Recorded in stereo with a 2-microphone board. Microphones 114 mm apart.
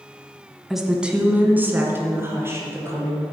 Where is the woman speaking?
Centre (ahead or behind), 1.2 m; by 3.2 s 25° right (ahead or behind), 3.5 m.